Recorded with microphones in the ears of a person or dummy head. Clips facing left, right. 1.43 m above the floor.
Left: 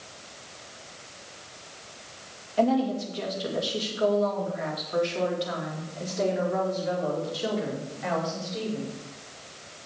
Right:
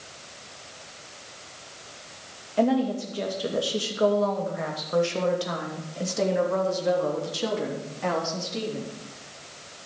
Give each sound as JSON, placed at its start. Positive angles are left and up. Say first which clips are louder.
{"t": 2.6, "sound": "a woman speaking", "louder": "right 1 dB", "side_deg": -35, "distance_m": 2.5}